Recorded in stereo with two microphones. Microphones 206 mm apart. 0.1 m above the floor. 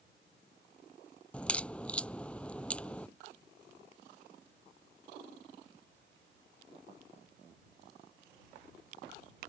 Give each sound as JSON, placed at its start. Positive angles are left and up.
{"t": 1.3, "sound": "a crack", "side_deg": 5}